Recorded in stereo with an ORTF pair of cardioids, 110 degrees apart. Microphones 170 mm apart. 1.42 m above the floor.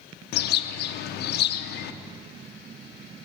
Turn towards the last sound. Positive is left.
turn(degrees=70)